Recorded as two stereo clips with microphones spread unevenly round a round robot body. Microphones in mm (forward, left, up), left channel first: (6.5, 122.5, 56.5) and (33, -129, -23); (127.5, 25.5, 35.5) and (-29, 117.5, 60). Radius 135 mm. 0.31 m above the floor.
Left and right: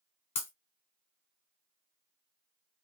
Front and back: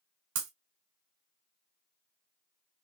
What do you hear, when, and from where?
0.3 s breaking glass: 165° left, 1.4 m